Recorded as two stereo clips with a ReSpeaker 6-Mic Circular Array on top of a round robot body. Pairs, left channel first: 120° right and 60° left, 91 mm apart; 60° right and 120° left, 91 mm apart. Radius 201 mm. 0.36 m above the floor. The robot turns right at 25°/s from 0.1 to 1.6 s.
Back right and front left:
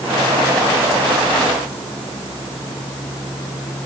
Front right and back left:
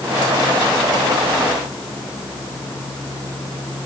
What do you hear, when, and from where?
Only background noise.